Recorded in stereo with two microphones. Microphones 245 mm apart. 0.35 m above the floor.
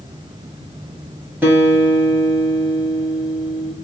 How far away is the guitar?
About 2.0 m.